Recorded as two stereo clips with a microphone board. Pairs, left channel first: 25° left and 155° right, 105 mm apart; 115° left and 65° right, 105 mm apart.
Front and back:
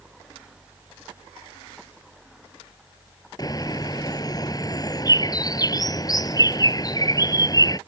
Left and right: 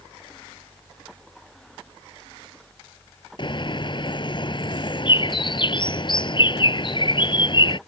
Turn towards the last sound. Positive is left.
turn(degrees=75)